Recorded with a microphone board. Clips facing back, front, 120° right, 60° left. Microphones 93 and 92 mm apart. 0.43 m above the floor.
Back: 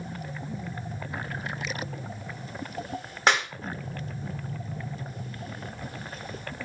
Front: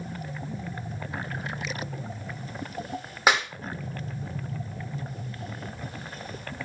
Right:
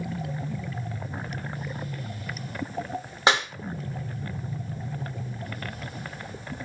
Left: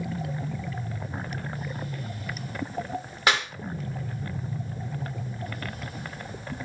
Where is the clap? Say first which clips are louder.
Front 1 dB, right 2 dB; 80° right, 0.9 m.